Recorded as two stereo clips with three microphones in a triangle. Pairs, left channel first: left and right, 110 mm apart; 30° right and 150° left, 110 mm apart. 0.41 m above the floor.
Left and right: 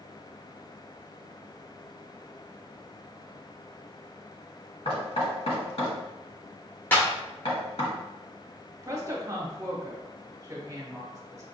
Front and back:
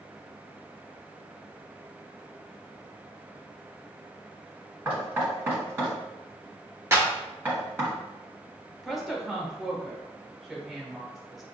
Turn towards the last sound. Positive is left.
turn(degrees=-120)